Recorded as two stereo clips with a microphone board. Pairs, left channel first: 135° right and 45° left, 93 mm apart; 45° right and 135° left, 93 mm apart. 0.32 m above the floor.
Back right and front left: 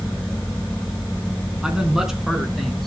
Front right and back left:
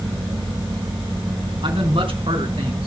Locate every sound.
1.6 s a man speaking: 125° left, 3.5 m; by 2.9 s 140° left, 4.5 m